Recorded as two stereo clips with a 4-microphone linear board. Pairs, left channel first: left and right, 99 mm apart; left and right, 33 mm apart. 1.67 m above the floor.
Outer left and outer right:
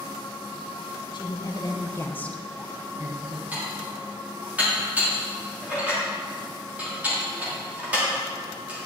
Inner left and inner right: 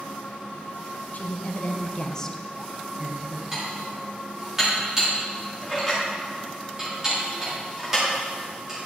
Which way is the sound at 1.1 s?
55° left (ahead or behind).